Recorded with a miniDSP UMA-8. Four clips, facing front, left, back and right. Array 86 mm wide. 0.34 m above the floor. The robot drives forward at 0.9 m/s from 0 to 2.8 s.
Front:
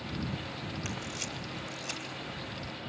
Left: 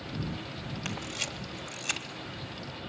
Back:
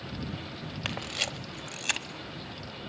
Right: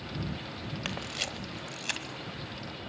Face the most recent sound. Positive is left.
turn(degrees=-175)